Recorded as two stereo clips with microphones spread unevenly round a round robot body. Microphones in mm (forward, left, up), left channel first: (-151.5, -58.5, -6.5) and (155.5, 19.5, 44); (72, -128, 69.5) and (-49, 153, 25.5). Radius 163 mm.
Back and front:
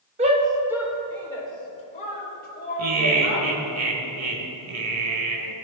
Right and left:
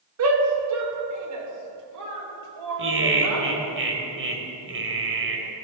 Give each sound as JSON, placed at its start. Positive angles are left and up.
{"t": 0.2, "sound": "a shout", "azimuth_deg": 90, "distance_m": 2.0}
{"t": 2.8, "sound": "laughter", "azimuth_deg": 65, "distance_m": 2.5}